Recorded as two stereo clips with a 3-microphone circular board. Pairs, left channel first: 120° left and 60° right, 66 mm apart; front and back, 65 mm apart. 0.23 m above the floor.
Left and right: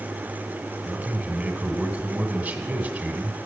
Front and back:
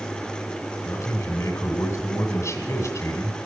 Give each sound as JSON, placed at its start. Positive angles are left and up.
{"t": 0.8, "sound": "a man speaking", "azimuth_deg": -10, "distance_m": 2.0}